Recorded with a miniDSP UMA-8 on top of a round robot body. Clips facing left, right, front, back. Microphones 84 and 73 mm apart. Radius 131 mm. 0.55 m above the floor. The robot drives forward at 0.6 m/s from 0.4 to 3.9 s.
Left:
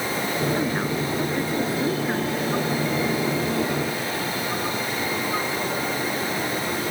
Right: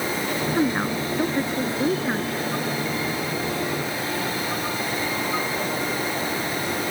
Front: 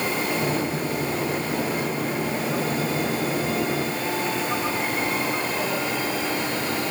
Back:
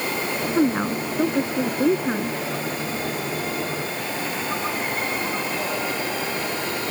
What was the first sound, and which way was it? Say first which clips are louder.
A woman speaking: right 2 dB, back 5 dB; 160° right.